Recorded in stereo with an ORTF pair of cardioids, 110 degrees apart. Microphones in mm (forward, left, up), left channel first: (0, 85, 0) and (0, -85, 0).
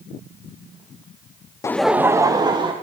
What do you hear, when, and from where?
1.6 s laughter: 20° left, 0.5 m; by 2.7 s 25° right, 1.7 m